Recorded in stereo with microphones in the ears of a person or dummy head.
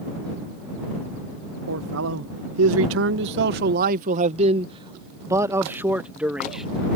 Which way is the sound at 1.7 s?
75° right (ahead or behind).